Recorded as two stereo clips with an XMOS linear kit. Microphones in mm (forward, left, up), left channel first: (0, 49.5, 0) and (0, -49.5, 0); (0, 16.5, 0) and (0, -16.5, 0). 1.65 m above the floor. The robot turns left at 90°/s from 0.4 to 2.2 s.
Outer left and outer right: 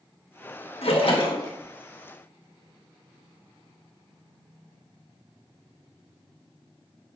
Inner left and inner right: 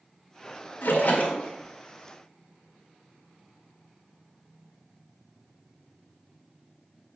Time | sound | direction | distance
0.8 | a splash | 95° left | 1.5 m